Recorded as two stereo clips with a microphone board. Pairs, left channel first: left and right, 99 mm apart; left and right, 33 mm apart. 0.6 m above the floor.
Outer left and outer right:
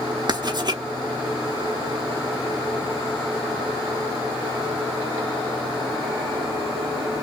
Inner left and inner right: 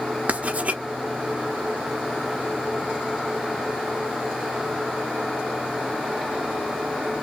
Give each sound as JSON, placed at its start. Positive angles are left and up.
{"t": 0.3, "sound": "writing", "side_deg": -45, "distance_m": 0.9}